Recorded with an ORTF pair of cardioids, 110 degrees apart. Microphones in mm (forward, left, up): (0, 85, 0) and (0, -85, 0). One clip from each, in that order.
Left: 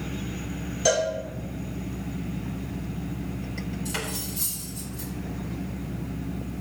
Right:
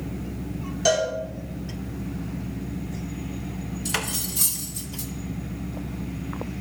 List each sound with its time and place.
0.8 s a cowbell: 15° right, 2.5 m
3.9 s cutlery clinking: 50° right, 1.2 m